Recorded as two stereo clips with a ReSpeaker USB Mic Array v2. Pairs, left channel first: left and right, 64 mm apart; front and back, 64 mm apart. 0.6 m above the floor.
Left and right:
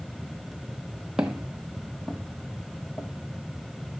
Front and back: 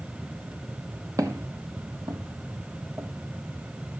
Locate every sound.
1.2 s footsteps: 165° right, 1.3 m; by 3.9 s 120° left, 1.7 m